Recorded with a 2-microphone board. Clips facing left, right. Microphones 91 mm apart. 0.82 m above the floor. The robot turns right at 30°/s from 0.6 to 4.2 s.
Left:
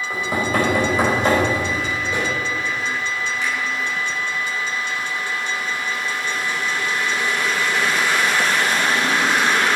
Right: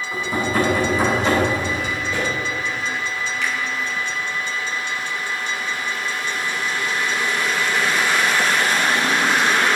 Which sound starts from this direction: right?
A finger snap, at 3.4 s.